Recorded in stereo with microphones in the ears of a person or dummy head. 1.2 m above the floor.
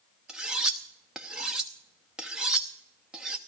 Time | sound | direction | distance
0.3 | cutlery clinking | 5° right (ahead or behind) | 0.8 m